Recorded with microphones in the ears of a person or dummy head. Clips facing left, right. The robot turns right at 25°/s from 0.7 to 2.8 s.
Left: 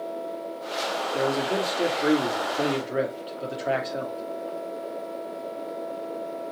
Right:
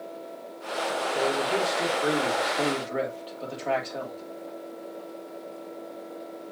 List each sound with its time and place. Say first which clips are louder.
1.1 s a man speaking: left 2 dB; 125° left, 2.5 m; by 4.2 s 170° left, 2.5 m